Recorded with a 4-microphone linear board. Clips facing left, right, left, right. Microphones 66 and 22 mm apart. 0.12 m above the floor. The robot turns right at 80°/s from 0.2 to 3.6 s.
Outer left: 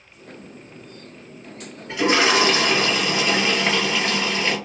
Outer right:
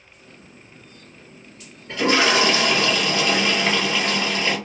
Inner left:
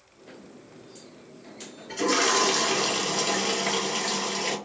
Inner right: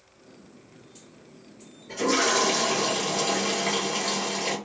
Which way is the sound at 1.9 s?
10° left (ahead or behind).